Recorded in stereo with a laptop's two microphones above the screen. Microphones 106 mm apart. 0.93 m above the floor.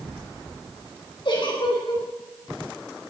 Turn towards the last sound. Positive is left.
turn(degrees=55)  # may be behind; listen again after turning